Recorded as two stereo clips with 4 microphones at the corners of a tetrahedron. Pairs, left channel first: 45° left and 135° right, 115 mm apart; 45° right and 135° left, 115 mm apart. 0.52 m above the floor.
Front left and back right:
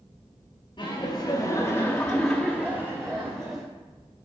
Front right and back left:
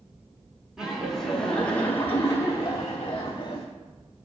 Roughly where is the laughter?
Ahead left.